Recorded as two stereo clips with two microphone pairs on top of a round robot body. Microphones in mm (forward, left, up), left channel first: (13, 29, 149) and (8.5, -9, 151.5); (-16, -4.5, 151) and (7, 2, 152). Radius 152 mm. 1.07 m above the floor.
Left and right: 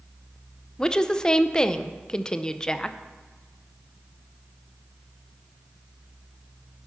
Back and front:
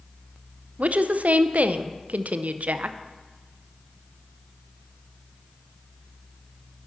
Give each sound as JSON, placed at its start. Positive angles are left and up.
{"t": 0.8, "sound": "a woman speaking", "azimuth_deg": 15, "distance_m": 0.6}